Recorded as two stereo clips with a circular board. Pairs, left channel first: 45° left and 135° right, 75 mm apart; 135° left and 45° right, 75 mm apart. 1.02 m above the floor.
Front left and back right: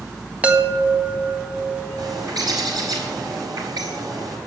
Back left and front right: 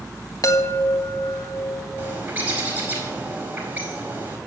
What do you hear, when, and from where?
0.4 s a chime: 160° left, 1.7 m
2.0 s a bird: 110° right, 4.5 m